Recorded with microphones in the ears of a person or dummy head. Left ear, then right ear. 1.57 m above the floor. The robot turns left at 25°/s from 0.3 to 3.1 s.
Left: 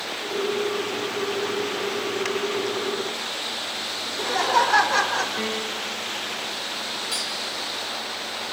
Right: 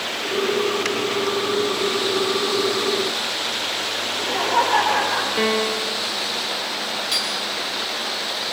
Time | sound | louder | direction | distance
4.0 | laughter | left 1 dB | 75° left (ahead or behind) | 6 m
5.4 | a piano | right 7 dB | 25° right (ahead or behind) | 0.7 m
7.1 | cutlery clinking | right 6 dB | 5° right (ahead or behind) | 4.5 m